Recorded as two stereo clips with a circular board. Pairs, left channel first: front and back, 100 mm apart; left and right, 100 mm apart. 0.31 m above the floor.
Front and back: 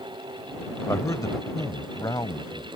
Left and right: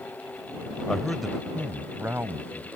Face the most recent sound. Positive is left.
turn(degrees=-35)